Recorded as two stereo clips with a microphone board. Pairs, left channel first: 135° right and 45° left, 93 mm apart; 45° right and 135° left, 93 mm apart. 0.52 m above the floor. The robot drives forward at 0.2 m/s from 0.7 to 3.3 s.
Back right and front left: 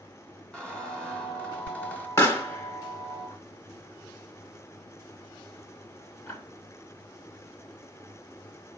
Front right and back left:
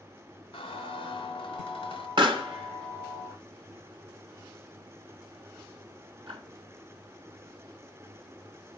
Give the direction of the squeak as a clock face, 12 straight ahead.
2 o'clock.